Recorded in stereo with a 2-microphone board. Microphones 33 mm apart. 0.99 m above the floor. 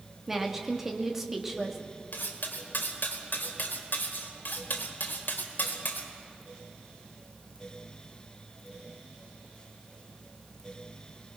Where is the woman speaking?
5° right (ahead or behind), 2 m.